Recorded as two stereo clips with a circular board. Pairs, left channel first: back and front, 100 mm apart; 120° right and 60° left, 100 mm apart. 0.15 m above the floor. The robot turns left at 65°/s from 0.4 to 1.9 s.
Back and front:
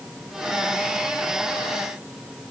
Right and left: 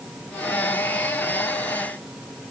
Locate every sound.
Only background noise.